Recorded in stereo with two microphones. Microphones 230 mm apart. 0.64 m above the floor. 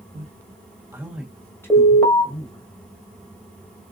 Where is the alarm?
5° left (ahead or behind), 1.5 m.